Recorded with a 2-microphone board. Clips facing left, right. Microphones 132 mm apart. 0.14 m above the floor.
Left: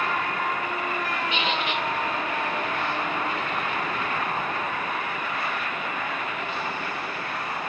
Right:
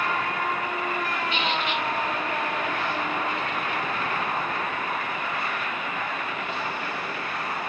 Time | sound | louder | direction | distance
1.3 | a squeak | even | 25° left (ahead or behind) | 2.5 m